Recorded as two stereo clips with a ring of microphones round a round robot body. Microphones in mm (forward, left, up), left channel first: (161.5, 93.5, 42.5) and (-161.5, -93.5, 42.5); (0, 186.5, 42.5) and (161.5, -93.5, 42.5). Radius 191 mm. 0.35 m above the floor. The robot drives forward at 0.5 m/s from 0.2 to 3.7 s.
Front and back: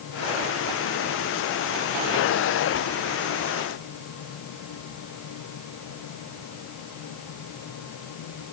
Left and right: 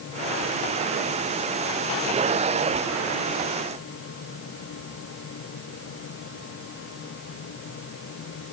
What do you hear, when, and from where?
Only background noise.